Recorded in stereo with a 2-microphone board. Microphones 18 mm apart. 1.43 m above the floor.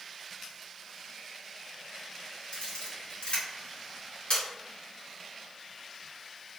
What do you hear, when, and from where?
2.5 s a camera shutter: 80° left, 1.2 m